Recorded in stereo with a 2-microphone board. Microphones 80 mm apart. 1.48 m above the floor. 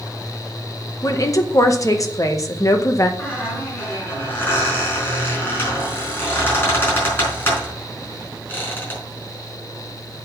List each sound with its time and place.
1.0 s a woman speaking: 45° left (ahead or behind), 1.3 m
3.2 s a squeak: 30° left (ahead or behind), 4.5 m